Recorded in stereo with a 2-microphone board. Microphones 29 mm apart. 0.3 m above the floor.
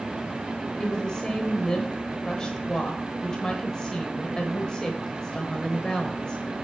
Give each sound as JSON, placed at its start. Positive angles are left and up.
{"t": 0.8, "sound": "a woman speaking", "side_deg": 25, "distance_m": 1.1}